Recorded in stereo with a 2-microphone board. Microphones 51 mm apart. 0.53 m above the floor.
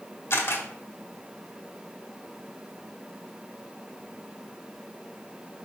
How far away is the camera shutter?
About 1.6 m.